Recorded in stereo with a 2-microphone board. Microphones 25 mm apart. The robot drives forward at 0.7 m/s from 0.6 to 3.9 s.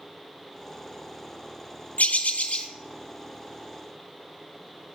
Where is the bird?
75° left (ahead or behind), 0.7 m; by 2.7 s 50° left (ahead or behind), 0.9 m.